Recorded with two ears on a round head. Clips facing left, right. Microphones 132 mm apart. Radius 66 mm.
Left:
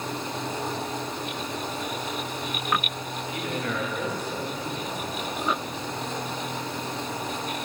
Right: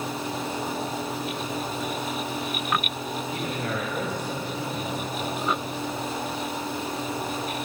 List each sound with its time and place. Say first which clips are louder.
3.3 s a man speaking: left 2 dB; 30° right (ahead or behind), 2 m